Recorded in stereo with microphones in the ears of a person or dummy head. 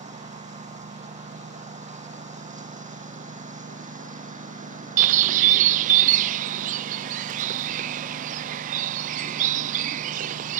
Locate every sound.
0.0 s a lawn mower: 35° right (ahead or behind); by 10.6 s 40° right (ahead or behind)
5.0 s a bird: 45° right (ahead or behind)